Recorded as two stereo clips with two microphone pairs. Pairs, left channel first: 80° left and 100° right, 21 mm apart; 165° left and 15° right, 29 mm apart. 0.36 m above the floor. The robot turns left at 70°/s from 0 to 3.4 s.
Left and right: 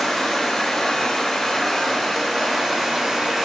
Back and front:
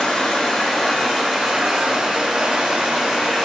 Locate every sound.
0.0 s running water: 140° left, 0.8 m; by 3.5 s 100° right, 0.8 m